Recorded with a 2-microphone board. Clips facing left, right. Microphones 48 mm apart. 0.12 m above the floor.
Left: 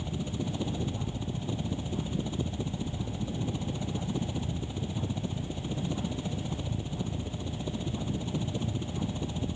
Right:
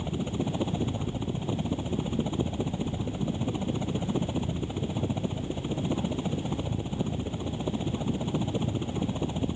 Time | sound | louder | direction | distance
0.0 | a helicopter | right 4 dB | 25° right (ahead or behind) | ?